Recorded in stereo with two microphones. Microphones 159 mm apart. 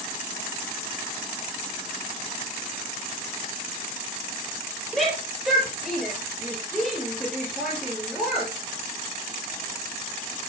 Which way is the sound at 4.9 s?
Centre (ahead or behind).